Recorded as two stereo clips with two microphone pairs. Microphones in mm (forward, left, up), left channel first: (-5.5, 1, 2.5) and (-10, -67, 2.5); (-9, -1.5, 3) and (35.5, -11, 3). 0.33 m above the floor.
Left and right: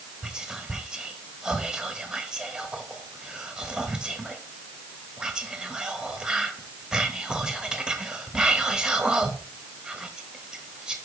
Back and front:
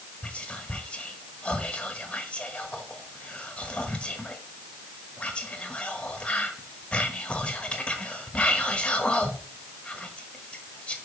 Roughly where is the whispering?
Behind.